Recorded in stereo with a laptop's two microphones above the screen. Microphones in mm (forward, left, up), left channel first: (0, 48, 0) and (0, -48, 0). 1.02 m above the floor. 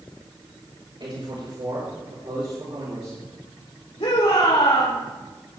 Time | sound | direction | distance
1.0 | a man speaking | 60° right (ahead or behind) | 5 m
4.0 | a shout | 65° left (ahead or behind) | 3 m